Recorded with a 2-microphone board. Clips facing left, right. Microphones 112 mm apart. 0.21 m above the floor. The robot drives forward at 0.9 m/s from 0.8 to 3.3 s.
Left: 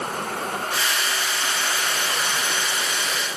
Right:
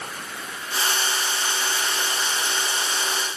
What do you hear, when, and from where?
0.0 s a vehicle: 55° left (ahead or behind); by 3.4 s 60° left (ahead or behind)